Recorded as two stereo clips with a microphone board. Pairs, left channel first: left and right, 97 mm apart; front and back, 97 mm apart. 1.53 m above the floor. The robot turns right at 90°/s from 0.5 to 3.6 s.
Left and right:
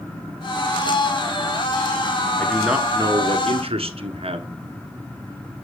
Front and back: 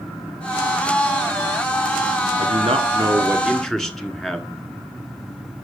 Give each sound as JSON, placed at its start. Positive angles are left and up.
{"t": 2.4, "sound": "a man speaking", "azimuth_deg": 165, "distance_m": 1.3}